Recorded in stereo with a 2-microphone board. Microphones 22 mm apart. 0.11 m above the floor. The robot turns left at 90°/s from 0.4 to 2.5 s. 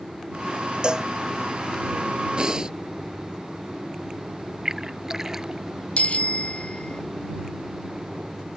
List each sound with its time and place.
0.8 s a cowbell: 35° right (ahead or behind); by 1.1 s 15° right (ahead or behind)
2.4 s breathing: 40° right (ahead or behind); by 2.8 s 30° right (ahead or behind)
4.7 s a splash: 20° right (ahead or behind)
6.0 s a bicycle bell: 60° left (ahead or behind)